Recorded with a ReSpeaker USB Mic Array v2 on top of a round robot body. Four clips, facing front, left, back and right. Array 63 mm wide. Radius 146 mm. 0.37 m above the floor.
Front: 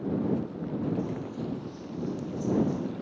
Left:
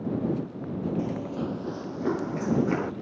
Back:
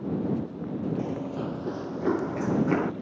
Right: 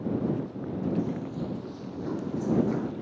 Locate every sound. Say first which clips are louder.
1.0 s running footsteps: left 2 dB, back 3 dB; 140° left; by 2.9 s 155° left